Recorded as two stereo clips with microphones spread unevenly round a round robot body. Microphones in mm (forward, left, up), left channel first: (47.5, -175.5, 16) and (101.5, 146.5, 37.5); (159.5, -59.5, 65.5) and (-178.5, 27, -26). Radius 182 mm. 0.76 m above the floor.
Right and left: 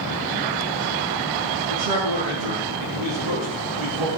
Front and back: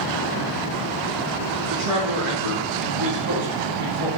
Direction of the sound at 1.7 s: 110° left.